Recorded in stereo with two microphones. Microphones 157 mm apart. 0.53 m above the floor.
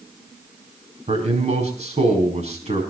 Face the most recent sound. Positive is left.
turn(degrees=-45)  # may be behind; listen again after turning